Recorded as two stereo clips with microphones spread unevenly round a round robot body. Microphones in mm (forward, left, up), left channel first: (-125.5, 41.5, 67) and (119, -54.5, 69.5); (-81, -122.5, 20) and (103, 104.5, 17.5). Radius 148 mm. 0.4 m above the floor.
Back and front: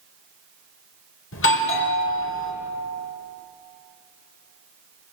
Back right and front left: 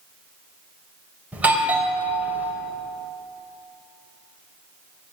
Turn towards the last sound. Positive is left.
turn(degrees=135)